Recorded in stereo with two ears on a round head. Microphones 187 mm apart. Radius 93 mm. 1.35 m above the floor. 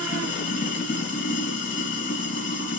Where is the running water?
45° left (ahead or behind), 2.5 m.